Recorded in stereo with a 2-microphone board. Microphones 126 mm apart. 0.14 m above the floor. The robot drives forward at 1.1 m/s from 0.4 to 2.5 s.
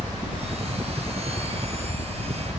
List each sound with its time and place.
0.0 s a helicopter: 30° right (ahead or behind); by 2.6 s 50° right (ahead or behind)